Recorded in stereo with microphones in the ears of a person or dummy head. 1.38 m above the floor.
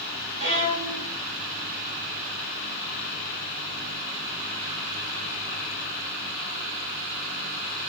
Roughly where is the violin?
Right.